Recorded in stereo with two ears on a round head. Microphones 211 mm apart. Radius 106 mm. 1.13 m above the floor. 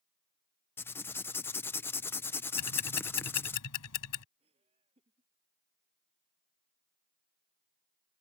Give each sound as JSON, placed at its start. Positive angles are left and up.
{"t": 0.8, "sound": "writing", "side_deg": 10}
{"t": 2.6, "sound": "ticking", "side_deg": 70}
{"t": 4.4, "sound": "laughter", "side_deg": -25}